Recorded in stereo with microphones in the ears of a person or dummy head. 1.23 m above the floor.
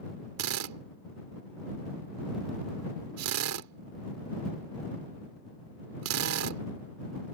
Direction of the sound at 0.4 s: 85° right.